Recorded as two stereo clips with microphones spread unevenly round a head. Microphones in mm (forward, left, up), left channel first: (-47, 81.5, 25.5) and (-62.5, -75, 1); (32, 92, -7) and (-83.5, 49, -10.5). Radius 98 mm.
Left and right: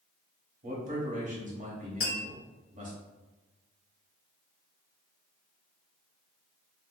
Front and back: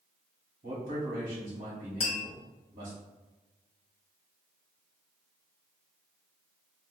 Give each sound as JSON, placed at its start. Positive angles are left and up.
{"t": 0.6, "sound": "a man speaking", "azimuth_deg": -125, "distance_m": 1.3}
{"t": 2.0, "sound": "tapping", "azimuth_deg": 45, "distance_m": 1.0}